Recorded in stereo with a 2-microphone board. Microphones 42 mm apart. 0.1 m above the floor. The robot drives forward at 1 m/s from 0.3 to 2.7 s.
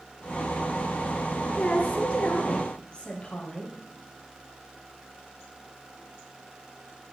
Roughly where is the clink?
No clink in this recording.